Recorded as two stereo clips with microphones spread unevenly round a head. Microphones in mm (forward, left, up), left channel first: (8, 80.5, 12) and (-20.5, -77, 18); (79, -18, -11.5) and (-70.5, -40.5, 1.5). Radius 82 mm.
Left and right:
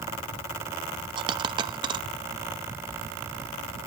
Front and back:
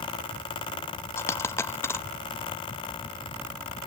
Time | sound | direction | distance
1.2 | a dropped coin | 60° right | 0.6 m